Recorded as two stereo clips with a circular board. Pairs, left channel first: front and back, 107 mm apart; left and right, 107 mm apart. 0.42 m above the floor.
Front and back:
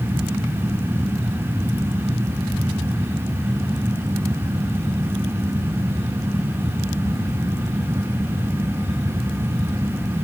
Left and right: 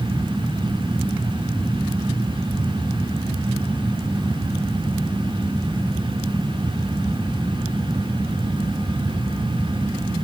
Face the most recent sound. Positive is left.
No sound to turn to.